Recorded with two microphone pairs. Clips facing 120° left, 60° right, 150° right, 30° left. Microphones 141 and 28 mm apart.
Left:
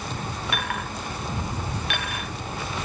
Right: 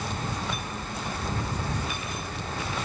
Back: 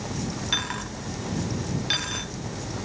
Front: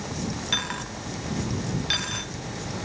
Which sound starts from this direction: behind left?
A dropped coin, at 0.5 s.